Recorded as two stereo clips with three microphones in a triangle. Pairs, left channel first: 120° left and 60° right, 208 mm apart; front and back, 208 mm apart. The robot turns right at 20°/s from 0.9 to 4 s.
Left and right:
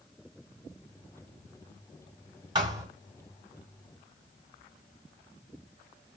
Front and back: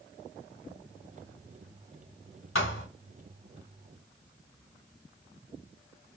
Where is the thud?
10° left, 1.7 m; by 2.9 s 15° left, 1.7 m.